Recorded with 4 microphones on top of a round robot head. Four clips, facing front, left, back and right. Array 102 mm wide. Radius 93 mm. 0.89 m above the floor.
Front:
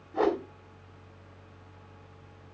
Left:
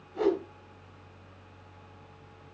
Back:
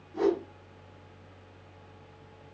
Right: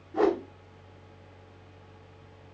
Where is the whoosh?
55° right, 1.7 m.